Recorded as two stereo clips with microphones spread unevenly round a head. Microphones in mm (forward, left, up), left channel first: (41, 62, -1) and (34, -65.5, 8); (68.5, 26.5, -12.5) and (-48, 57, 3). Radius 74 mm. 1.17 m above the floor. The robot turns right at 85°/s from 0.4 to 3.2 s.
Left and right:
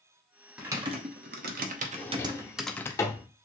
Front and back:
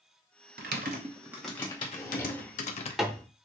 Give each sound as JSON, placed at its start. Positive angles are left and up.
{"t": 0.6, "sound": "typing on a keyboard", "azimuth_deg": 180, "distance_m": 0.8}
{"t": 1.9, "sound": "a drawer", "azimuth_deg": 20, "distance_m": 0.8}